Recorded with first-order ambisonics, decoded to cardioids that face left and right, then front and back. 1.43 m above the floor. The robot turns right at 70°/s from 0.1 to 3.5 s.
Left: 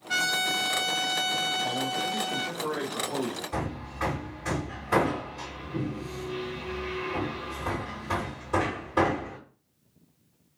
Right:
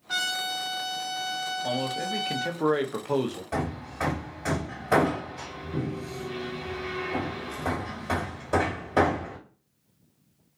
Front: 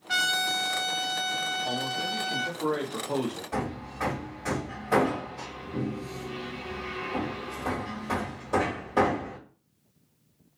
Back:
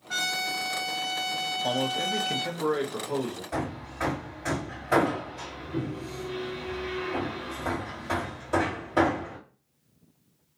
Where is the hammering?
95° right, 1.8 m.